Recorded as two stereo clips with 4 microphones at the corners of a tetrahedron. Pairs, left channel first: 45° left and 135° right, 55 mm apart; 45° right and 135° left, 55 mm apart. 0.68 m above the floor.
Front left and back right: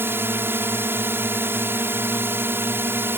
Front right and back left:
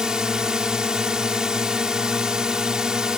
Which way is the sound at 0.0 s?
150° right.